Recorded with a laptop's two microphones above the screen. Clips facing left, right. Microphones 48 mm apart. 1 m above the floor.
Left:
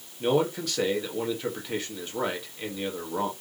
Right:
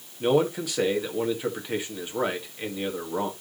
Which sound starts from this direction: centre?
A man speaking, at 0.2 s.